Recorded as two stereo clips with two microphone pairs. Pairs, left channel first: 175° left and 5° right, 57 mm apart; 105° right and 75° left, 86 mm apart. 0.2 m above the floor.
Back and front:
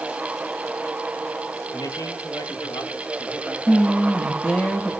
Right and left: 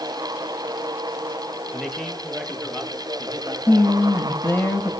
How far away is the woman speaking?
About 1.1 m.